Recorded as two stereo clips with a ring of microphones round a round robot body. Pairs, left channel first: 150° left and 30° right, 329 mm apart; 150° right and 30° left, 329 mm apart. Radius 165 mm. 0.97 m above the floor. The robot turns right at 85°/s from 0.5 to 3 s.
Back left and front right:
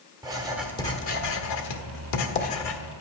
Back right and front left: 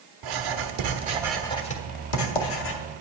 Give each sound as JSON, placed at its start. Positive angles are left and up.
{"t": 0.2, "sound": "writing", "azimuth_deg": 50, "distance_m": 1.3}